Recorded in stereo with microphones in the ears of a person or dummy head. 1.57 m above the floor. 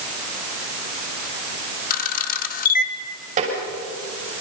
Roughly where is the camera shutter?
Left.